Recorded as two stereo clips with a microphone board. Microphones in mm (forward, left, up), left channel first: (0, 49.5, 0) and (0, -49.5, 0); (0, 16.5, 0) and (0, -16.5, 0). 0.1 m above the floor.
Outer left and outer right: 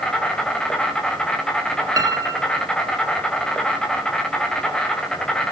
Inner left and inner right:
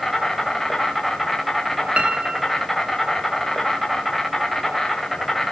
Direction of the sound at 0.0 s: 10° left (ahead or behind).